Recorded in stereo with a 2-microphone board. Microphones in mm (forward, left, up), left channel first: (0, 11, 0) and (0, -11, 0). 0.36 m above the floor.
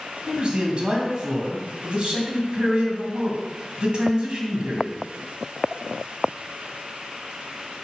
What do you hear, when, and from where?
0.3 s a man speaking: 45° right (ahead or behind), 2.5 m